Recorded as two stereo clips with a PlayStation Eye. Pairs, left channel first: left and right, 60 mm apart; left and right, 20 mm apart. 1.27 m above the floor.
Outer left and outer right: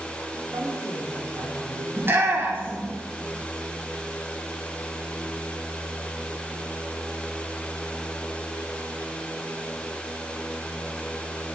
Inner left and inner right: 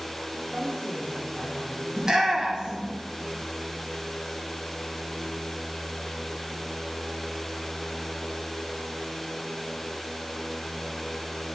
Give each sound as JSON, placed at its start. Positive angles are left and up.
{"t": 0.5, "sound": "a man speaking", "side_deg": -60, "distance_m": 3.0}
{"t": 2.0, "sound": "a shout", "side_deg": -40, "distance_m": 1.5}